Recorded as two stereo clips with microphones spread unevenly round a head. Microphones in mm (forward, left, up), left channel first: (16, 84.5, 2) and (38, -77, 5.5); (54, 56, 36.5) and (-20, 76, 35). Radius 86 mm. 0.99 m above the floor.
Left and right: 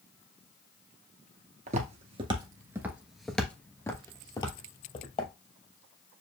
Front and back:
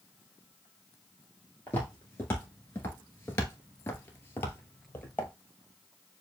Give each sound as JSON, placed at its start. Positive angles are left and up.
{"t": 1.7, "sound": "footsteps", "azimuth_deg": -80, "distance_m": 1.2}